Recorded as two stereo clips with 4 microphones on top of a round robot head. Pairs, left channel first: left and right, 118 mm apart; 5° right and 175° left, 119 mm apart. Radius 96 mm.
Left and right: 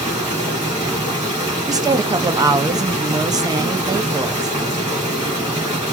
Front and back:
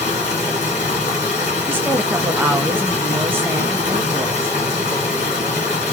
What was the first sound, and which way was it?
Running water, 15° right.